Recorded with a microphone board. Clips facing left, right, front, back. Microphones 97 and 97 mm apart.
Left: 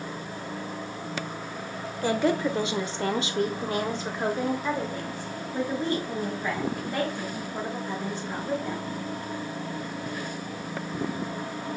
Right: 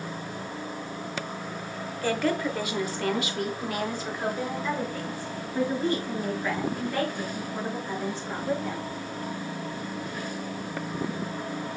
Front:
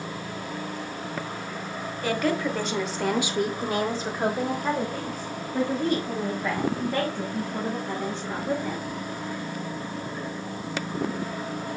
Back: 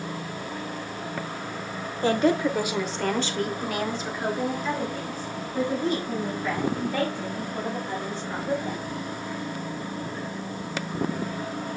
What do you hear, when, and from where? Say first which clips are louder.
2.0 s a woman speaking: left 2 dB, back 4 dB; 150° left, 1.0 m; by 8.9 s 20° left, 4 m